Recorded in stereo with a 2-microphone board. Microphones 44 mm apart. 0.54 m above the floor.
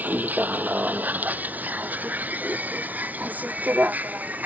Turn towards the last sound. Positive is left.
turn(degrees=-35)  # may be behind; listen again after turning